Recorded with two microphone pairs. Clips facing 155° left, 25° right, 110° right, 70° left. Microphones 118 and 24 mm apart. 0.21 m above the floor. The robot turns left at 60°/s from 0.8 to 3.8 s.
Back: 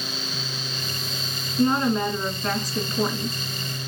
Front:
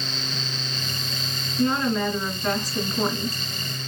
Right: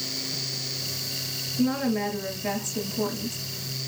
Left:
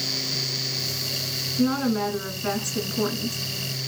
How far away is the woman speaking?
About 2.0 m.